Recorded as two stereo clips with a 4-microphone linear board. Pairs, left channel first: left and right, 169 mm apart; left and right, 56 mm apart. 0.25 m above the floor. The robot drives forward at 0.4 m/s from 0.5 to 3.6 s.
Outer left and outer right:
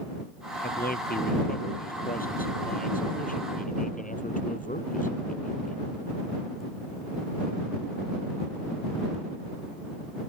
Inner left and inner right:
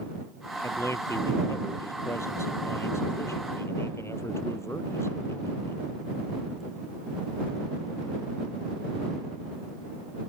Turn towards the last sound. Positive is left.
turn(degrees=55)  # may be behind; listen again after turning